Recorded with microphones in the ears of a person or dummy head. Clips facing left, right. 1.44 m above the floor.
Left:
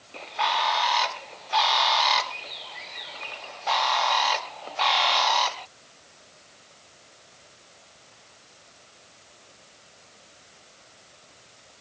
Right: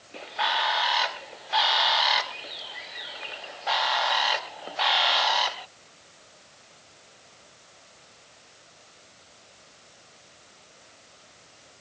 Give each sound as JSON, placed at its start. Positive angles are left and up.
{"t": 0.1, "sound": "a bird", "side_deg": -5}